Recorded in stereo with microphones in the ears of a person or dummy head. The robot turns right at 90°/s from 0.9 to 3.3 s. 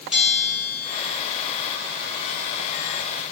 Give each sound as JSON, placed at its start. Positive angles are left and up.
{"t": 0.1, "sound": "a bell", "side_deg": -5, "distance_m": 4.5}